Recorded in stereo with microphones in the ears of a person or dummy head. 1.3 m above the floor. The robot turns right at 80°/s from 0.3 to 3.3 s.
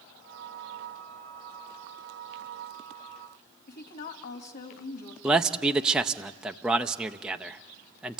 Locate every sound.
3.7 s a woman speaking: 35° left (ahead or behind), 2 m
5.2 s a man speaking: 15° right (ahead or behind), 0.6 m